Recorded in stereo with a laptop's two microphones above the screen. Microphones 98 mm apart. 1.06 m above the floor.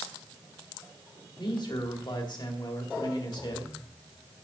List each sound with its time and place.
1.4 s a man speaking: 50° left (ahead or behind), 2 m